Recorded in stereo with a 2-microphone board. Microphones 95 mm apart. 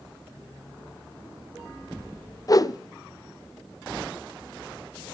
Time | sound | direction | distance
2.5 | a whoosh | 40° left (ahead or behind) | 0.6 m